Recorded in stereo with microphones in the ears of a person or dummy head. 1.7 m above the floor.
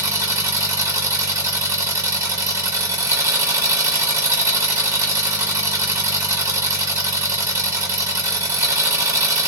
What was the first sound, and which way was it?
An engine running, 15° right (ahead or behind).